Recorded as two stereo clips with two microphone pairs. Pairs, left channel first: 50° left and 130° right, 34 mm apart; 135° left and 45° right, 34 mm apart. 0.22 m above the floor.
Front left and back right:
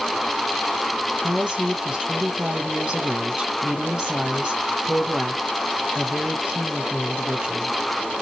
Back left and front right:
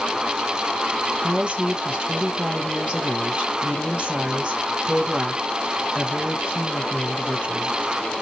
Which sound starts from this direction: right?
A woman speaking, at 1.2 s.